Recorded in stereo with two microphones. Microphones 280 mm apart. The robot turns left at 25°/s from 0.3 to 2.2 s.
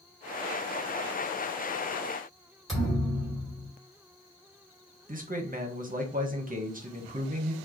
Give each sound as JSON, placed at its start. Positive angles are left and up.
{"t": 2.7, "sound": "a thud", "side_deg": 0, "distance_m": 2.0}
{"t": 5.1, "sound": "a man speaking", "side_deg": -30, "distance_m": 0.7}